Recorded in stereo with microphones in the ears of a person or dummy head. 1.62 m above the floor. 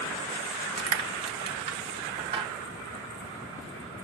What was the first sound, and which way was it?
Crushing, 30° right (ahead or behind).